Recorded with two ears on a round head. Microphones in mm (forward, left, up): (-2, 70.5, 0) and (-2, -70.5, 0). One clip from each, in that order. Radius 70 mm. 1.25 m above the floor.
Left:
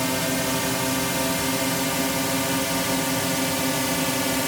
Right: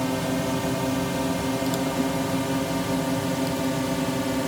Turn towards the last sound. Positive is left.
turn(degrees=55)  # may be behind; listen again after turning